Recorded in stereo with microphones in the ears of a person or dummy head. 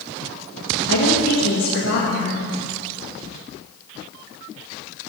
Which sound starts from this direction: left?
A woman speaking, at 0.9 s.